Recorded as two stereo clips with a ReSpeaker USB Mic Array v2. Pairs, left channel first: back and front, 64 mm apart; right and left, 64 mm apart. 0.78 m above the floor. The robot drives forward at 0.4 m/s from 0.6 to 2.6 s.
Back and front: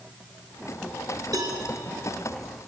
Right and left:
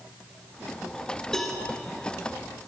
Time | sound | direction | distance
1.3 | a cowbell | 5° right | 3 m